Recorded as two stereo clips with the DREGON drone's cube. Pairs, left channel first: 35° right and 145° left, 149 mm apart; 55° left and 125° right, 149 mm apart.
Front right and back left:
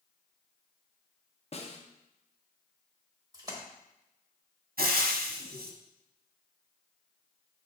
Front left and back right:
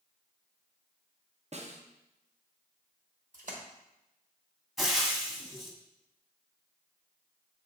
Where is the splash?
150° right, 1.2 m.